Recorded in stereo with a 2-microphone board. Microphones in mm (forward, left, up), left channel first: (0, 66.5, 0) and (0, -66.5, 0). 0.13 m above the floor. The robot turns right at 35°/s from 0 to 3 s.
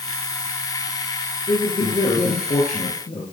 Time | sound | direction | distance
1.5 | a man speaking | 55° left | 3 m